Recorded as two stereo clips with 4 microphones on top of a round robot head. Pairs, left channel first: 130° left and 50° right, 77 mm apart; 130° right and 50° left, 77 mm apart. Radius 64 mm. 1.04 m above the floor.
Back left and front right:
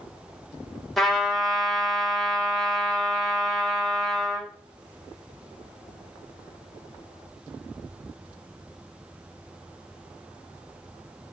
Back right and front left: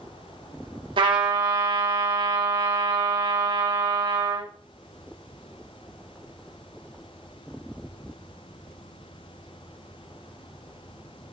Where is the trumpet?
45° left, 2 m.